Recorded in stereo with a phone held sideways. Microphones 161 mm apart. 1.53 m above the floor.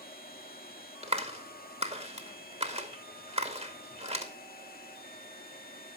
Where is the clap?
40° right (ahead or behind), 2 m.